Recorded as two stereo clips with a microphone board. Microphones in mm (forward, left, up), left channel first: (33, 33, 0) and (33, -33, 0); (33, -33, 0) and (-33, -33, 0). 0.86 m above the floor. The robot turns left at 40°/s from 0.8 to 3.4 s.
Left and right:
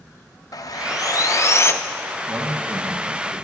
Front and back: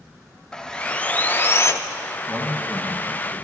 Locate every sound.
0.5 s sawing: 75° left, 0.5 m; by 1.7 s 40° left, 0.5 m
2.3 s a man speaking: 70° right, 1.5 m; by 3.4 s 115° right, 1.5 m